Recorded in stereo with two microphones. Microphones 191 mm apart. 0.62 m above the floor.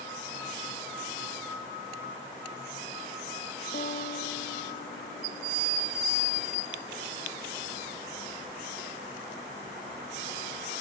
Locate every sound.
3.7 s a guitar: 50° left (ahead or behind), 1.3 m